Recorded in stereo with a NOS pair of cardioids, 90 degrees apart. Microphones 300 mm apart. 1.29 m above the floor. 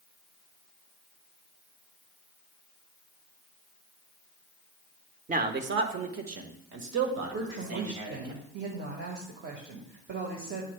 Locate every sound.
5.3 s a man speaking: 30° right, 1.1 m; by 8.3 s 75° right, 2.5 m
7.3 s a woman speaking: 40° right, 1.7 m